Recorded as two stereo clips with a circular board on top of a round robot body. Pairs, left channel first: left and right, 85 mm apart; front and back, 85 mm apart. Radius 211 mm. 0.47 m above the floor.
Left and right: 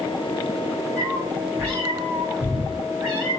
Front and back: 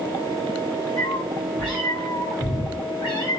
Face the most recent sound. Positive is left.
turn(degrees=-35)